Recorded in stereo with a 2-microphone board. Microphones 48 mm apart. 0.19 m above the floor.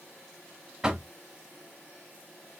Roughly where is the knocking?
Centre.